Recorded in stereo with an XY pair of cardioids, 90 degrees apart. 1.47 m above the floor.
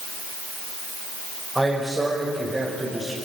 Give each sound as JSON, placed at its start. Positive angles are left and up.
{"t": 1.6, "sound": "a man speaking", "azimuth_deg": -10, "distance_m": 5.5}